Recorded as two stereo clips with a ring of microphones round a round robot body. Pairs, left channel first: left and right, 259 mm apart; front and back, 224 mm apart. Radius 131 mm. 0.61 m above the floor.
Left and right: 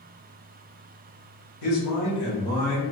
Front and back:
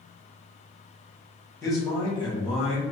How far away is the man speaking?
About 1.4 m.